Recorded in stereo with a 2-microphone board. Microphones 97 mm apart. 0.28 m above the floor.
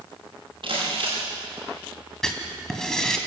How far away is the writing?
About 2.5 m.